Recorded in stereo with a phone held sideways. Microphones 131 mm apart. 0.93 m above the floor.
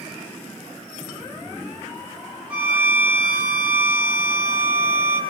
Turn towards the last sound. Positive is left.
turn(degrees=-10)  # may be behind; listen again after turning